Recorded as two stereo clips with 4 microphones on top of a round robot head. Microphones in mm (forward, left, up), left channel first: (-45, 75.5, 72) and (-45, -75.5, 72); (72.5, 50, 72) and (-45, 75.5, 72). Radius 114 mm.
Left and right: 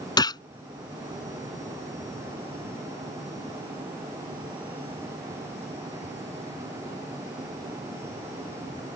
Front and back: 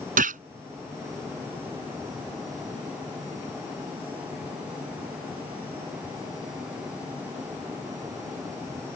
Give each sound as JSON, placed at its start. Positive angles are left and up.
{"t": 0.2, "sound": "a gunshot", "azimuth_deg": 155}